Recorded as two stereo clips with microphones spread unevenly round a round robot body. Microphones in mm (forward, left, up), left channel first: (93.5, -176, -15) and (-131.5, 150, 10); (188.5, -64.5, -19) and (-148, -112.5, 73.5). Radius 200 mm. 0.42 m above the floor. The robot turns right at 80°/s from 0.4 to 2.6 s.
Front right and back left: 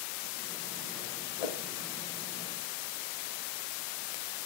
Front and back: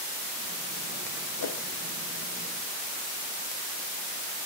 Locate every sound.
1.4 s a whoosh: 40° right, 0.9 m; by 1.6 s 20° right, 0.9 m